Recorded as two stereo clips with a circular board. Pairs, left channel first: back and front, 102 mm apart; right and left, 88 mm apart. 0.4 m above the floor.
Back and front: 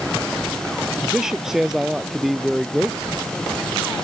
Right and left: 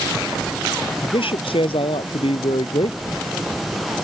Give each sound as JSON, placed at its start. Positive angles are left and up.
{"t": 1.0, "sound": "a man speaking", "azimuth_deg": -85}